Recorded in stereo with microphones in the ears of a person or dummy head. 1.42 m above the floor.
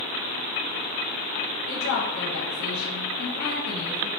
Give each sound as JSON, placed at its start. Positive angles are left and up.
{"t": 1.7, "sound": "a woman speaking", "side_deg": 70, "distance_m": 0.8}